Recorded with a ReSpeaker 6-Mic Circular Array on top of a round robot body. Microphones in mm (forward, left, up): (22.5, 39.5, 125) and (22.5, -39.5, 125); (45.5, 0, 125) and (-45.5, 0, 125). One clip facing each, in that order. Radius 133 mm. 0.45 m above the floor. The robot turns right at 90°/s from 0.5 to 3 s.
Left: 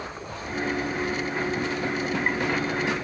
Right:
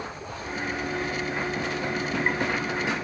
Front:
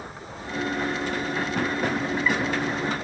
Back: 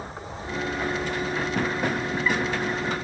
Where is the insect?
120° left, 1.8 m; by 3.0 s 15° right, 1.8 m.